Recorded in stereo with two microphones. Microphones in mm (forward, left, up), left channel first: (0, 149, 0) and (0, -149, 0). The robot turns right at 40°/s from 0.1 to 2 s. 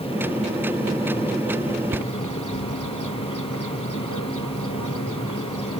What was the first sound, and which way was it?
A bird, 90° left.